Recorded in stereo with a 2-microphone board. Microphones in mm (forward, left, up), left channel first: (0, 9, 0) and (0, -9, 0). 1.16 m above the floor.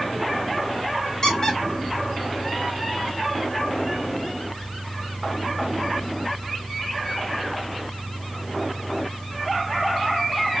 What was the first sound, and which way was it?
A squeak, 35° left (ahead or behind).